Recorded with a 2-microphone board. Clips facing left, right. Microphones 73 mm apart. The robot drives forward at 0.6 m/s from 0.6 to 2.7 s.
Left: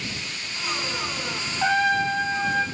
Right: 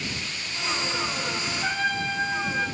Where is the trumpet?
75° left (ahead or behind), 1.2 m; by 2.6 s 65° left (ahead or behind), 1.2 m.